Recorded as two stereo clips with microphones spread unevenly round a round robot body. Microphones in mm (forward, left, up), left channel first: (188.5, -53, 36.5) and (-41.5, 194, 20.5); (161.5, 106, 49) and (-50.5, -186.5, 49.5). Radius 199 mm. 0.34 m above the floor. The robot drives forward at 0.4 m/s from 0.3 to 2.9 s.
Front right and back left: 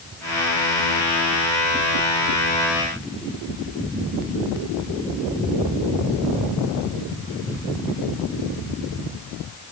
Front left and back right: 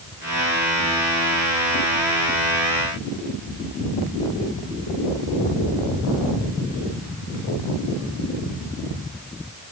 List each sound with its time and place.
Only background noise.